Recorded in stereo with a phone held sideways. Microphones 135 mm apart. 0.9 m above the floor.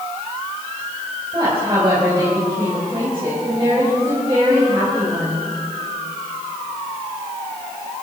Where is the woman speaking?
35° right (ahead or behind), 4 m.